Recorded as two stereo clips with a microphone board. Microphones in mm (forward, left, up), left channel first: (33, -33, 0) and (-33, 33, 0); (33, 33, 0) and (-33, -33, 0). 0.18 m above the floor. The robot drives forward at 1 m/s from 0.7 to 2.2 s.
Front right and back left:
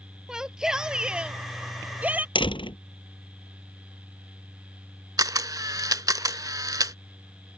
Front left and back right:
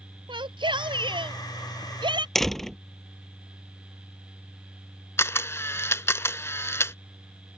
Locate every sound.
0.3 s a shout: 145° right; by 2.2 s 155° right
2.4 s a door slam: 40° right
5.2 s a camera shutter: 100° left